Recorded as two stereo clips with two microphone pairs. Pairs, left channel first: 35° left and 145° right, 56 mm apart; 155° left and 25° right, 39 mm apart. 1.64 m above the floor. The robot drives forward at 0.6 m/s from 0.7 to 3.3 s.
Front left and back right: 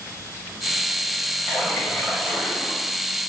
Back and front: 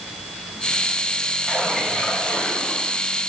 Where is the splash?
80° left, 4.5 m; by 3.0 s 95° left, 4 m.